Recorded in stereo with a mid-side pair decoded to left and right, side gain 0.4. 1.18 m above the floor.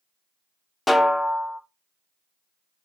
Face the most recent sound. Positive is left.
turn(degrees=20)